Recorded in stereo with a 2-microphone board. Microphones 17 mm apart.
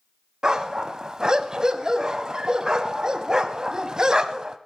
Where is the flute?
No flute in this recording.